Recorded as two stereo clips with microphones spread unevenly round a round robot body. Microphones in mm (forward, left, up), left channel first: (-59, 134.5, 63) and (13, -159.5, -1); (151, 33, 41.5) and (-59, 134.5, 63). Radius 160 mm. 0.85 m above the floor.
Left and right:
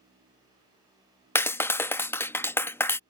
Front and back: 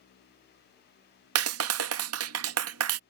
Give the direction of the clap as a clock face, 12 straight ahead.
6 o'clock.